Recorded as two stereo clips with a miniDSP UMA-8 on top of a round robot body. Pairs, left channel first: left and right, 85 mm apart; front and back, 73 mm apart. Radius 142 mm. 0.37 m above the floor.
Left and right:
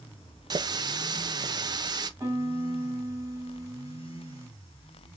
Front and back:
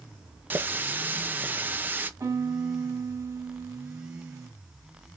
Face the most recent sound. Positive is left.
turn(degrees=-145)